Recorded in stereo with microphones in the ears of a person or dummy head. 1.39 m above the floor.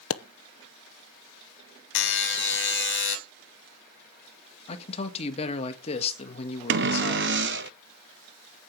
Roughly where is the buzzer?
Left.